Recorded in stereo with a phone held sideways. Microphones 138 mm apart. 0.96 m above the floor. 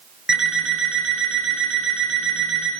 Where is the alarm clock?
5° right (ahead or behind), 7 m.